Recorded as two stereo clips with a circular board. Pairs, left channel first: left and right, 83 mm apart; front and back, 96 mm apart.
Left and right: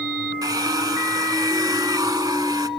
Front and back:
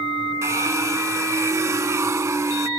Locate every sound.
0.4 s a hair dryer: 125° right, 0.6 m